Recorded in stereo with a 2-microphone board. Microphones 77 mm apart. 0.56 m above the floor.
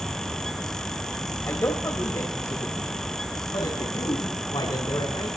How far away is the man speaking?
About 3 m.